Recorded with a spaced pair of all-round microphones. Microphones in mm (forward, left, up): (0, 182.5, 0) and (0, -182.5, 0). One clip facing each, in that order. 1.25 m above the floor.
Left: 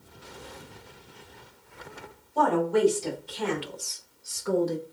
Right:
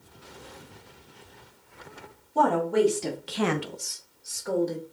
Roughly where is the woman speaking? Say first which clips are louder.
Even; right.